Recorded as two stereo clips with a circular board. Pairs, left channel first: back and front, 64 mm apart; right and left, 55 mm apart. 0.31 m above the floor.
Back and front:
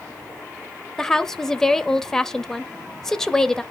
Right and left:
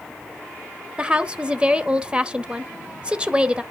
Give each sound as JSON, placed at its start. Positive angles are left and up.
{"t": 1.0, "sound": "a woman speaking", "azimuth_deg": 115, "distance_m": 0.9}